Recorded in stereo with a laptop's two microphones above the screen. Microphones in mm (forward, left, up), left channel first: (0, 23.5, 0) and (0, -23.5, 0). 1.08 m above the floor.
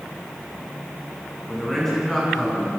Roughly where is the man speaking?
Centre.